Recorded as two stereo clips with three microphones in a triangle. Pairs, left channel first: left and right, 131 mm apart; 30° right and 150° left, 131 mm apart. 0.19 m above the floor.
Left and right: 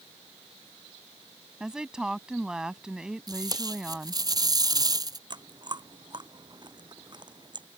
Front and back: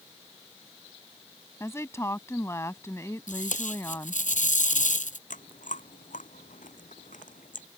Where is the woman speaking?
15° right.